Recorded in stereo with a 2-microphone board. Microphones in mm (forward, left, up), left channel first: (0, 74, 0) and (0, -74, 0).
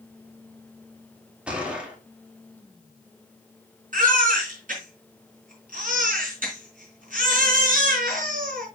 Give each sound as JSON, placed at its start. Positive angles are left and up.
{"t": 1.5, "sound": "a gunshot", "side_deg": -10, "distance_m": 2.0}
{"t": 3.9, "sound": "a baby crying", "side_deg": -65, "distance_m": 3.5}